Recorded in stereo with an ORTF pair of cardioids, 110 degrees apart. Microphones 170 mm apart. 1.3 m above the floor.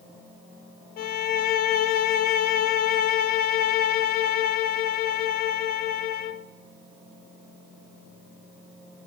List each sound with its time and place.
1.0 s a violin: 65° left, 0.7 m